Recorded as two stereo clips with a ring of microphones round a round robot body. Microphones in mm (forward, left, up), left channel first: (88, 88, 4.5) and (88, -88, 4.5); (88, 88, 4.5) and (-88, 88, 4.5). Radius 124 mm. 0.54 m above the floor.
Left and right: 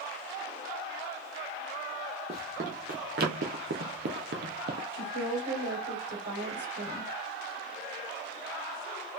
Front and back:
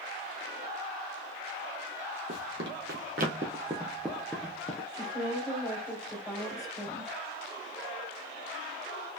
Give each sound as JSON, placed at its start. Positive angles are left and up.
{"t": 2.3, "sound": "running footsteps", "azimuth_deg": -155, "distance_m": 1.4}
{"t": 4.9, "sound": "a woman speaking", "azimuth_deg": -80, "distance_m": 2.0}